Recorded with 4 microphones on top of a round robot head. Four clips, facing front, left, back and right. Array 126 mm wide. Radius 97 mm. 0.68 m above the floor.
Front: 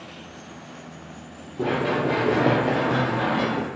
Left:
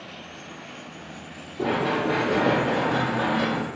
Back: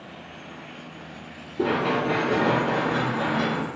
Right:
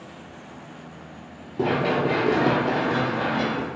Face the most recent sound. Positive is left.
turn(degrees=15)